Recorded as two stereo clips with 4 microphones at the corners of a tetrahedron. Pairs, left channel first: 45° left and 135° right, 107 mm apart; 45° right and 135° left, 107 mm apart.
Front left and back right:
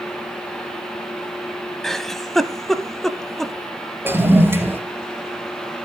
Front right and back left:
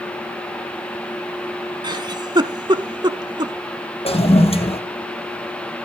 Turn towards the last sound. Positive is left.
turn(degrees=-65)